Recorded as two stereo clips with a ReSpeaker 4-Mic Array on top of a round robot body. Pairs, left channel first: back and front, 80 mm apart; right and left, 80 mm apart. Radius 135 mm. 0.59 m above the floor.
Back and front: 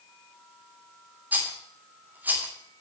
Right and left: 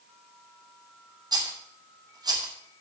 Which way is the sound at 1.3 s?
65° left.